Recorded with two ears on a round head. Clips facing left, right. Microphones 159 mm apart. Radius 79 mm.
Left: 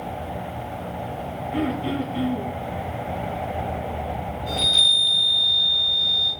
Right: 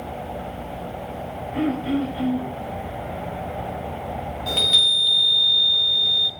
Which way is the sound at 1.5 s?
50° left (ahead or behind).